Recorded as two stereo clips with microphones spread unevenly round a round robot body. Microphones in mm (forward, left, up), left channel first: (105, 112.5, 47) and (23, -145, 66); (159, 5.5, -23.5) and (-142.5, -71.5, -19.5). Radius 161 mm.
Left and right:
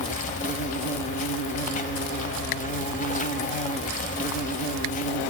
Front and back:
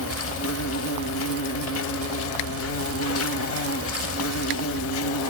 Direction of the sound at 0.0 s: 20° left.